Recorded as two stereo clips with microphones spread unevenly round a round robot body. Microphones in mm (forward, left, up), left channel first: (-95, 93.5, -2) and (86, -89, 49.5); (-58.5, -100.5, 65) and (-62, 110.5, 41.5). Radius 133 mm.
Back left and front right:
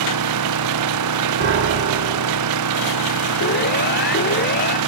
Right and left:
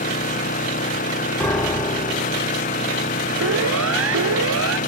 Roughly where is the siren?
Left.